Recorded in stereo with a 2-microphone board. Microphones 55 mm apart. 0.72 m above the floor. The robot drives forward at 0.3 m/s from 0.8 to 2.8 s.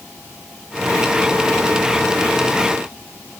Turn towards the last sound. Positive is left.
No sound to turn to.